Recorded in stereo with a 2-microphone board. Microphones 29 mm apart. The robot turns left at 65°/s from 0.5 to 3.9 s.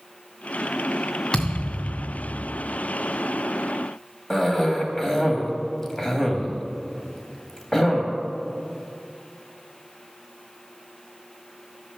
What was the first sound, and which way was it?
A thud, 155° left.